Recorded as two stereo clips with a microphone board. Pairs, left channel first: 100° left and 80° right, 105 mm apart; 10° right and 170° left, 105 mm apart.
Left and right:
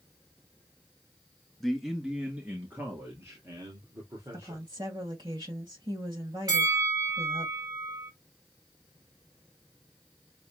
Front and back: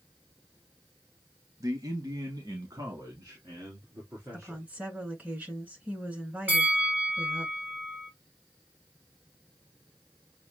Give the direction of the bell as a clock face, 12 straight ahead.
4 o'clock.